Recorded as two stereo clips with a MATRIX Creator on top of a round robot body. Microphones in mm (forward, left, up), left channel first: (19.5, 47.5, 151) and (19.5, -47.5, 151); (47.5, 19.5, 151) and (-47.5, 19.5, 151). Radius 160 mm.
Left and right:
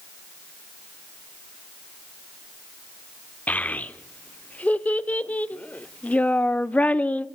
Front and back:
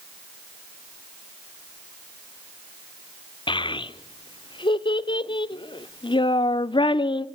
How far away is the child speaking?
About 0.8 m.